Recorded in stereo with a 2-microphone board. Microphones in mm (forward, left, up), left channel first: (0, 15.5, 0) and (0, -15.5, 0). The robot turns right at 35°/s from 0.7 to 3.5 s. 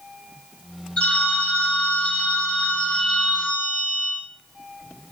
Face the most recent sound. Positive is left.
turn(degrees=155)